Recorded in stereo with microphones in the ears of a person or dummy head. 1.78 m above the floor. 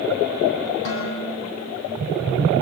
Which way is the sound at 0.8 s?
70° left (ahead or behind).